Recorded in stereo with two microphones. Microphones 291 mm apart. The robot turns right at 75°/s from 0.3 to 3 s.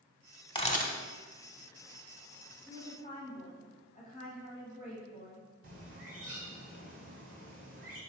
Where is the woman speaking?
15° left (ahead or behind), 1.1 m; by 5.5 s 25° left (ahead or behind), 1.1 m.